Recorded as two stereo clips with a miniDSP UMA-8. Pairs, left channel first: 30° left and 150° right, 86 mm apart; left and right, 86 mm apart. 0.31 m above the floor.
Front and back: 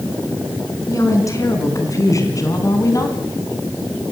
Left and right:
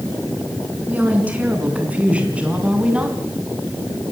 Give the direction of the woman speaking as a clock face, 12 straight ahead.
1 o'clock.